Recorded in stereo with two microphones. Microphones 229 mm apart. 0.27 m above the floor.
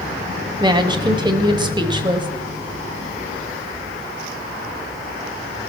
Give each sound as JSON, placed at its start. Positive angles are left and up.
{"t": 0.6, "sound": "a woman speaking", "side_deg": -20, "distance_m": 1.2}